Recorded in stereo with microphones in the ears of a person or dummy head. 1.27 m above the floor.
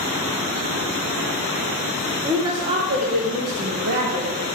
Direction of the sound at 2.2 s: 15° right (ahead or behind).